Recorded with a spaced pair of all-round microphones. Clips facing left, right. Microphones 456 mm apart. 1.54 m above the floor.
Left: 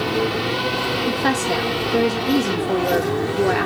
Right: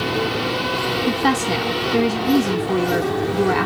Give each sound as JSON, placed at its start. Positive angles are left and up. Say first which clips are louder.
{"t": 1.1, "sound": "a woman speaking", "louder": "right 2 dB", "side_deg": -20, "distance_m": 1.3}